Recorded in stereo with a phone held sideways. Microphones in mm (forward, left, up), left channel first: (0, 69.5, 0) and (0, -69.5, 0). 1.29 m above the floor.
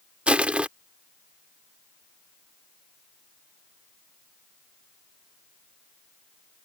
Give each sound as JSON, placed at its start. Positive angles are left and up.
{"t": 0.3, "sound": "crushing", "side_deg": -10}